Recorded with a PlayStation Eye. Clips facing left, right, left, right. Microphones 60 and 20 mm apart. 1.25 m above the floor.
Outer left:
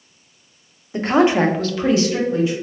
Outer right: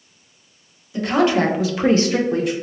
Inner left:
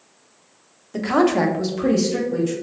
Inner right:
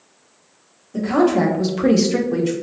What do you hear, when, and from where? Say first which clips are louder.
0.9 s a woman speaking: outer left 2 dB, inner right 1 dB; 35° left (ahead or behind), 0.8 m; by 2.5 s 70° right (ahead or behind), 0.9 m